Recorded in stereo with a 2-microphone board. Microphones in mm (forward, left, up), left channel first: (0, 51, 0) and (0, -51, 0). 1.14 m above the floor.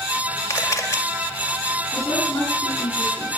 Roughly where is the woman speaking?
Left.